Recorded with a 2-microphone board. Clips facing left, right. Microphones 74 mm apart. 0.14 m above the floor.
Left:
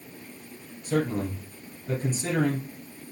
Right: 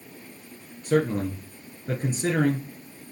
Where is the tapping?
No tapping in this recording.